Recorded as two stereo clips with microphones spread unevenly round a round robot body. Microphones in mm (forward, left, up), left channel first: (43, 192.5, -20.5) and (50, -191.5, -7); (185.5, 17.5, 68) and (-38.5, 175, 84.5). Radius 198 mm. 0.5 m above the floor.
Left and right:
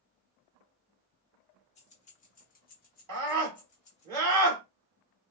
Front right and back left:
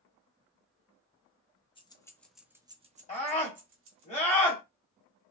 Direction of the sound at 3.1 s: 80° right.